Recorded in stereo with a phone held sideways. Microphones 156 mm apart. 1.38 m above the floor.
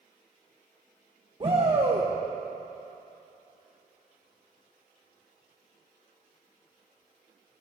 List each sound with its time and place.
1.4 s a shout: 35° right (ahead or behind), 1.3 m